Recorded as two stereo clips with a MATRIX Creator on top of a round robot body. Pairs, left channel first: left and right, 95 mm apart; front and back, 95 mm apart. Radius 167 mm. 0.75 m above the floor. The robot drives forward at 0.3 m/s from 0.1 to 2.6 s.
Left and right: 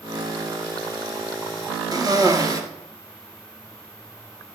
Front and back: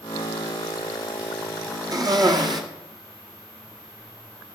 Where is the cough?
135° right, 1.7 m; by 2.6 s 140° right, 1.9 m.